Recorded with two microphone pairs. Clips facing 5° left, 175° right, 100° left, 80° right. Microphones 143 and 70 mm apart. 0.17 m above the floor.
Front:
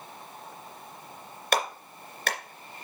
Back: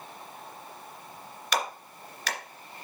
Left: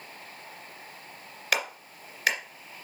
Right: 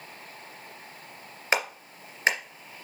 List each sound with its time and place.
1.5 s a clap: 20° right, 2.5 m